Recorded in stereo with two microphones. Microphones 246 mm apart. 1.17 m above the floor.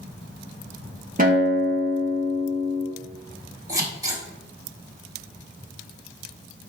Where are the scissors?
15° right (ahead or behind), 3 m.